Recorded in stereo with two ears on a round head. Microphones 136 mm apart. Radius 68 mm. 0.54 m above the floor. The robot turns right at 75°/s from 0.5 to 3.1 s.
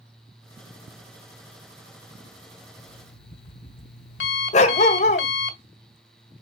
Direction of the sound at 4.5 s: 45° left (ahead or behind).